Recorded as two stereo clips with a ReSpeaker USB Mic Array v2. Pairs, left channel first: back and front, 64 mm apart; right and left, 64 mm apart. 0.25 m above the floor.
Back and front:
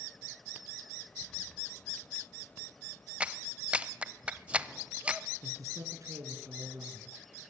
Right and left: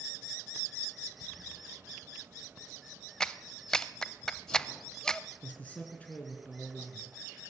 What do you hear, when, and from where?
3.2 s a clap: 30° right, 0.7 m
5.4 s a man speaking: 20° right, 3 m